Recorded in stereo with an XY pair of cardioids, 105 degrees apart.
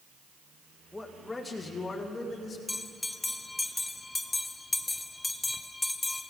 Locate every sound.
0.9 s a man speaking: 10° left, 1.9 m; by 2.6 s 35° left, 3.5 m
2.7 s a bell: 15° left, 0.6 m